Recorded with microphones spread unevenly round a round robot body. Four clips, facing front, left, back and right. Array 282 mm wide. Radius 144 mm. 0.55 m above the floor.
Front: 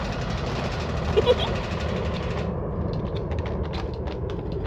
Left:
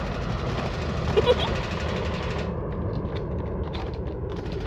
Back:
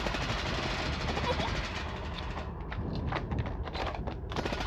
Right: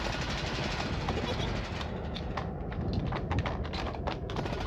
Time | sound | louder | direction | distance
0.0 | a helicopter | left 5 dB, front 5 dB | 35° left | ?
1.2 | a giggle | left 14 dB, front 15 dB | 40° left | ?